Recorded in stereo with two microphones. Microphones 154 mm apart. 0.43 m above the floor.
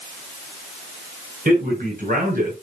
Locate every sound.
1.4 s a man speaking: 60° right (ahead or behind), 6.5 m